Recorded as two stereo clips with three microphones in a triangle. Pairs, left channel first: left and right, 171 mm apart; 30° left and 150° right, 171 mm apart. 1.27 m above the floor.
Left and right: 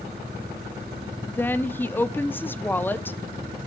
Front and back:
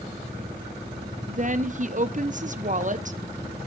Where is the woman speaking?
170° left, 0.7 m.